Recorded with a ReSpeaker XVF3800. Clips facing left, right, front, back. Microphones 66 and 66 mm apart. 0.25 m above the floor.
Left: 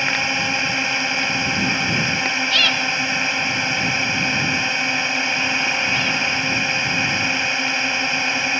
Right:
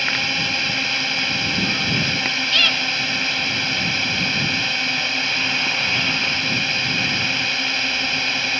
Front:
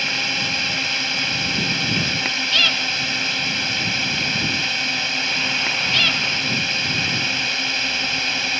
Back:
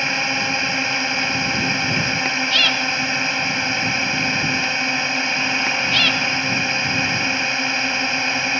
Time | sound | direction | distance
0.0 | a drone | 140° left | ?